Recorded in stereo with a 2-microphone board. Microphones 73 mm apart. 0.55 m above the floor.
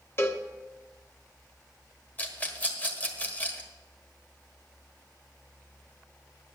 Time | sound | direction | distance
0.2 | a cowbell | 35° left (ahead or behind) | 0.9 m
2.2 | a rattle | 25° left (ahead or behind) | 1.5 m